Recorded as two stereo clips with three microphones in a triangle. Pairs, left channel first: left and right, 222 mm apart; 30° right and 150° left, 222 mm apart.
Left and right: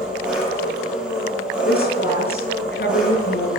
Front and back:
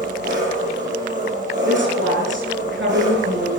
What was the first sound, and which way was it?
An engine running, 175° right.